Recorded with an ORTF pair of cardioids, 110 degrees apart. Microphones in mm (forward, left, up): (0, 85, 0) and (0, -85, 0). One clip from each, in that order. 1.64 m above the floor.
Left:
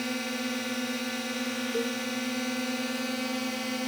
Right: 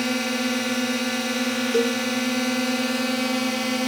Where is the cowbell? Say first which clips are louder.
Right 10 dB; 60° right.